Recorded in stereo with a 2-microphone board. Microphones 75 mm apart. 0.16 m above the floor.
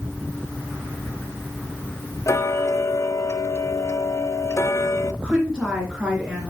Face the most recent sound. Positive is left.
turn(degrees=-10)  # may be behind; listen again after turning